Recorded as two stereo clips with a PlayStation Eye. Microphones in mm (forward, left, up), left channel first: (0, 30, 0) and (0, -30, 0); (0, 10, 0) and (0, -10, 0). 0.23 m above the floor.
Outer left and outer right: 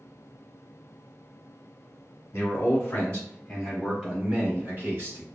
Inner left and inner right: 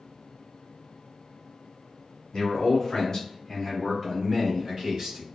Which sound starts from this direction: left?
A man speaking, at 2.3 s.